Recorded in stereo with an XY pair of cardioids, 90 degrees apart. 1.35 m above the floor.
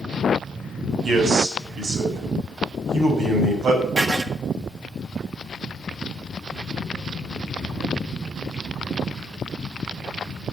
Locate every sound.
1.0 s a man speaking: 65° right, 6.5 m
4.0 s writing: 35° right, 1.6 m